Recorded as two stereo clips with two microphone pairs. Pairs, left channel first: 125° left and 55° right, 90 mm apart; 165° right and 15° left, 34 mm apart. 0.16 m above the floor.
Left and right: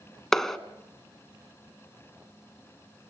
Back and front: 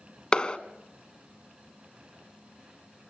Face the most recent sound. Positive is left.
turn(degrees=-155)